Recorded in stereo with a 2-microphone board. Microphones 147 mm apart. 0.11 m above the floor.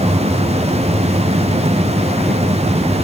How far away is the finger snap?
I don't hear a finger snap.